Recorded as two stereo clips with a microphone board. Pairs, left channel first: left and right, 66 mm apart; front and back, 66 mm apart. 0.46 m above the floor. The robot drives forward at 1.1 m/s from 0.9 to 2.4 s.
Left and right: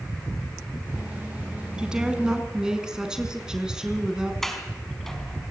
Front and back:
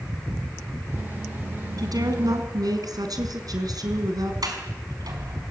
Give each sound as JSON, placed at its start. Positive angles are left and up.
{"t": 1.8, "sound": "a woman speaking", "azimuth_deg": -165, "distance_m": 4.0}
{"t": 4.4, "sound": "a sliding door", "azimuth_deg": 175, "distance_m": 5.0}